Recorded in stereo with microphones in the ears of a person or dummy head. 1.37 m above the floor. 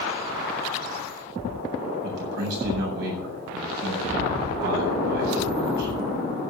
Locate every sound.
2.0 s a man speaking: 60° right (ahead or behind), 7.5 m